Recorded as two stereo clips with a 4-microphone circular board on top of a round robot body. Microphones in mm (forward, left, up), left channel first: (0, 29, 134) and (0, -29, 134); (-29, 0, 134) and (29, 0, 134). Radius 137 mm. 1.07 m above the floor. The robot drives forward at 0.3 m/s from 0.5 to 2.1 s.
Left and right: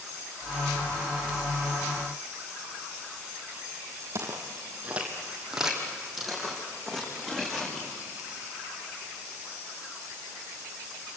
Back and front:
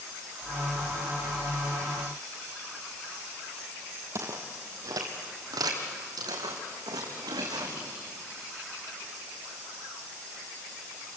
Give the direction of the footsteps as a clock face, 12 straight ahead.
1 o'clock.